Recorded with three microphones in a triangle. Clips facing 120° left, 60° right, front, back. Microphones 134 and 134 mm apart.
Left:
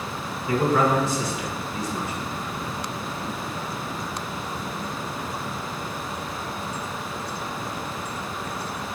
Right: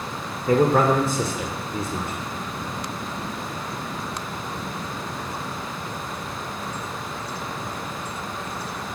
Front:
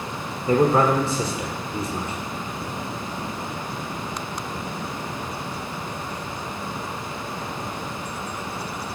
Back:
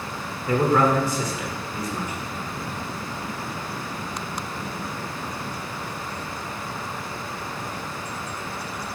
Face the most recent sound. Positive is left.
turn(degrees=-55)